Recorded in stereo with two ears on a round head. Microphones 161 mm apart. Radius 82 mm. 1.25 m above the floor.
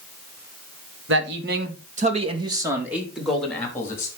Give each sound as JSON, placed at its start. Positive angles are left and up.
{"t": 1.1, "sound": "a man speaking", "side_deg": -65, "distance_m": 2.5}